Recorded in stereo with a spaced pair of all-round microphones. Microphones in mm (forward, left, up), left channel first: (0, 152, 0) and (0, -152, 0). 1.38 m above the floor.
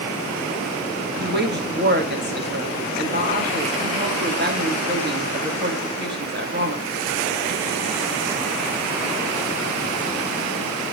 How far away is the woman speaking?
About 2.5 m.